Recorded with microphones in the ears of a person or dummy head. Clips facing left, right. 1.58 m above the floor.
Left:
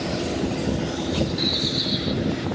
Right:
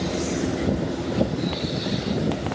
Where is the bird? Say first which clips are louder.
Even; 80° left, 1.0 m.